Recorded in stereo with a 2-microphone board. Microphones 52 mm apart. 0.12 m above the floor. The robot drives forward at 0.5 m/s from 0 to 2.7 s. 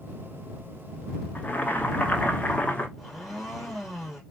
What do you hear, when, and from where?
1.4 s boiling: 30° left (ahead or behind), 1.0 m
3.0 s a blender: centre (ahead or behind), 2.5 m